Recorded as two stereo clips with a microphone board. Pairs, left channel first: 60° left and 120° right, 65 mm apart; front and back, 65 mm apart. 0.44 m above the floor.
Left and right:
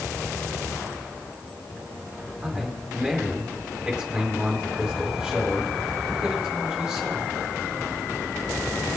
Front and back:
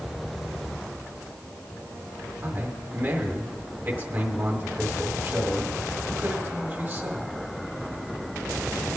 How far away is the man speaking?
About 1.5 m.